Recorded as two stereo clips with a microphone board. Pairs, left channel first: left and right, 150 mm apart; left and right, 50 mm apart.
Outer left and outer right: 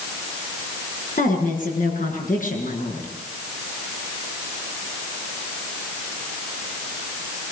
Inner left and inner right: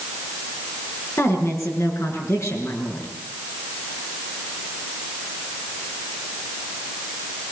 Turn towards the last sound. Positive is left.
turn(degrees=65)  # may be behind; listen again after turning